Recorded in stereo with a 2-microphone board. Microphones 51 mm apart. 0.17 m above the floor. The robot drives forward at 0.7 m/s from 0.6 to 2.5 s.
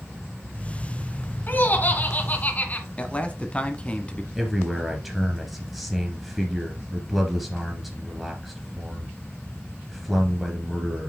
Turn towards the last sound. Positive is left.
turn(degrees=0)  # may be behind; listen again after turning